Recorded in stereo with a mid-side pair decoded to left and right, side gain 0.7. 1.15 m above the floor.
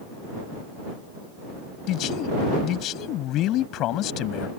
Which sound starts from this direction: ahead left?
A man speaking, at 1.9 s.